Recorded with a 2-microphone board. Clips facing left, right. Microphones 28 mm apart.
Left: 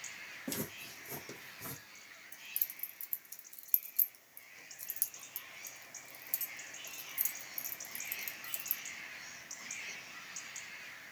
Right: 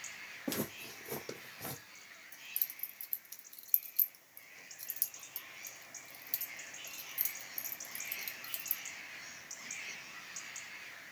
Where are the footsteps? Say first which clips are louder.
Right 4 dB; 25° right (ahead or behind), 2 m; by 1.8 s 40° right (ahead or behind), 2.5 m.